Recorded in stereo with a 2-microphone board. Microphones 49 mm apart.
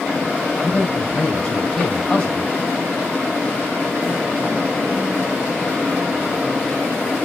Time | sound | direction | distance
0.6 | a man speaking | 15° left (ahead or behind) | 4 m